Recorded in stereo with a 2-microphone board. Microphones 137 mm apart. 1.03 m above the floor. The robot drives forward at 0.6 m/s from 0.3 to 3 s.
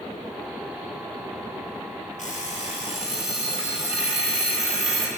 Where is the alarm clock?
60° left (ahead or behind), 1.7 m; by 5.1 s 45° left (ahead or behind), 2.0 m.